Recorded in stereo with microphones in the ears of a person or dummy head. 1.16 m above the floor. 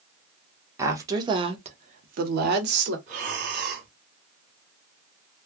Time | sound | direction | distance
0.8 | a woman speaking | 15° right (ahead or behind) | 1.0 m
3.1 | breathing | 50° right (ahead or behind) | 1.8 m